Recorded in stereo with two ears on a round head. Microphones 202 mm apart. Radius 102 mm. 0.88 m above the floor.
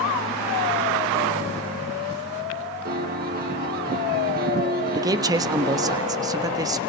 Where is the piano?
45° right (ahead or behind), 4 m.